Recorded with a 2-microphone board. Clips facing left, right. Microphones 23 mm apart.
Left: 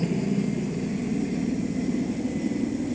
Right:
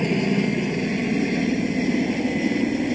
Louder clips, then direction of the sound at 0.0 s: Right 5 dB; 50° right (ahead or behind).